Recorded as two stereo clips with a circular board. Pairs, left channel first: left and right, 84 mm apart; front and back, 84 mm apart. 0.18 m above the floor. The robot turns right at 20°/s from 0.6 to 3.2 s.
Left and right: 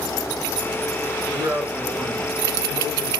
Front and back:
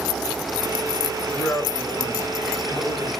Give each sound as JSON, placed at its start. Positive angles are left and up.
{"t": 1.2, "sound": "a man speaking", "azimuth_deg": -70, "distance_m": 1.9}